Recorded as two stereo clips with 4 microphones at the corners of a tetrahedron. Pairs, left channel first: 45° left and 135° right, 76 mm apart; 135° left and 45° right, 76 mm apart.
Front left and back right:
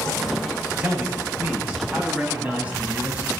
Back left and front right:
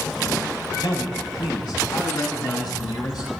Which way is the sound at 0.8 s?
155° left.